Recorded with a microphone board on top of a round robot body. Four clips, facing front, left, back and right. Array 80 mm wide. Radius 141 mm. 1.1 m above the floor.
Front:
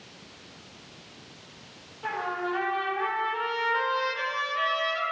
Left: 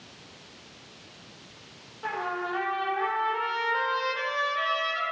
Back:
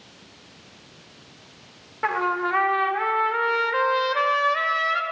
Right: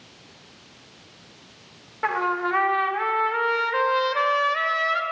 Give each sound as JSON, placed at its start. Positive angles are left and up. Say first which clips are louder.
{"t": 2.0, "sound": "a trumpet", "louder": "right 7 dB, back 7 dB", "azimuth_deg": -135, "distance_m": 2.5}